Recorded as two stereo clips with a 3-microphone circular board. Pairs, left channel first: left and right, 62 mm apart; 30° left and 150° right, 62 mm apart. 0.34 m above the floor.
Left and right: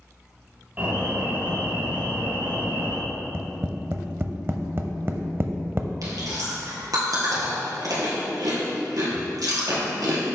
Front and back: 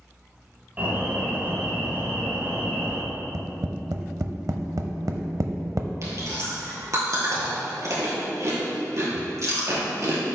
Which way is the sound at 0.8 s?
115° right.